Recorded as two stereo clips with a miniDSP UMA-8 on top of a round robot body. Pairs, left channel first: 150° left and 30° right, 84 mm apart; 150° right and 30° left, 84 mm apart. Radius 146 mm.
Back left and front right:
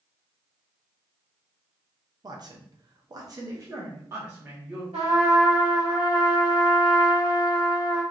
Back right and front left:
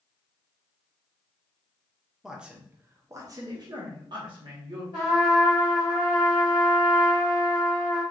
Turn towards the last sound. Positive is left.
turn(degrees=-20)